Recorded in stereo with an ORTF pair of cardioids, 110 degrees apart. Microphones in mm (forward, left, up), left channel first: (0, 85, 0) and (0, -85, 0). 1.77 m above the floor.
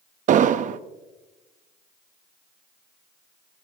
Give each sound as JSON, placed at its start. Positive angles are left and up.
{"t": 0.3, "sound": "an explosion", "azimuth_deg": -50, "distance_m": 0.7}